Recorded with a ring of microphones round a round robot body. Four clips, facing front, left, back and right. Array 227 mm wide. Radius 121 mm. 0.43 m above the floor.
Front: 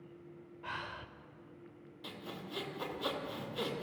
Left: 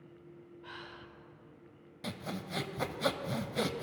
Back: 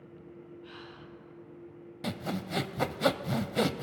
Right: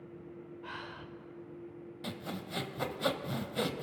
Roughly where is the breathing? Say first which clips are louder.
Right 3 dB, front 3 dB; ahead right.